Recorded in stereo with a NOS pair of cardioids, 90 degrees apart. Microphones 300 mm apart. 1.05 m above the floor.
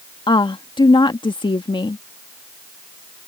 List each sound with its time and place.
0.3 s a woman speaking: 15° left